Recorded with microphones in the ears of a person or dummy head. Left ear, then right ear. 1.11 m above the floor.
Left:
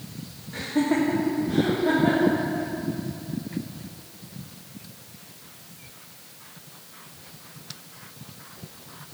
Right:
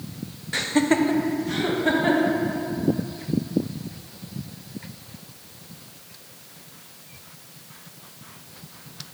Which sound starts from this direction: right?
Laughter, at 0.5 s.